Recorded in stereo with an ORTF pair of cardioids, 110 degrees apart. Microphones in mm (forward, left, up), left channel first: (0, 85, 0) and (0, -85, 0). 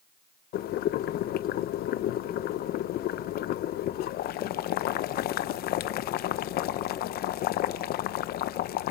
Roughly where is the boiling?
Ahead left.